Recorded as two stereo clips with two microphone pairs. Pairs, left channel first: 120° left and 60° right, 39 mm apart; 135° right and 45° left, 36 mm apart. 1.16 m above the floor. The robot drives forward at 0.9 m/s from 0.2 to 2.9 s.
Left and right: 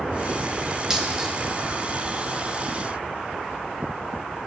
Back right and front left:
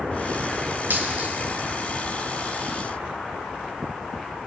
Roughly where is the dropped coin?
Ahead.